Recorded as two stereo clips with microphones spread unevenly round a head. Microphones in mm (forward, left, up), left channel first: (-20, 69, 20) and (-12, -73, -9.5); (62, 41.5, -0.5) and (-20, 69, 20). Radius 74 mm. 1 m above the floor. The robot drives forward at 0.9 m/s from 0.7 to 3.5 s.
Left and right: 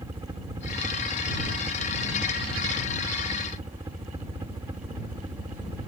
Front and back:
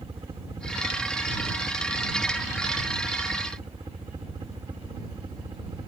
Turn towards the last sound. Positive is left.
turn(degrees=-145)